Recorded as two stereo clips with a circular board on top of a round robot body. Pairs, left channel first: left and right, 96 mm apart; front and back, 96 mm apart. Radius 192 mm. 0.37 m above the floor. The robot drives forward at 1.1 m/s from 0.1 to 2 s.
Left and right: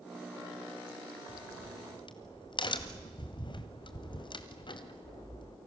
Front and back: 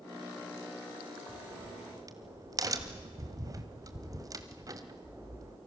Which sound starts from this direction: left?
A crack, at 1.3 s.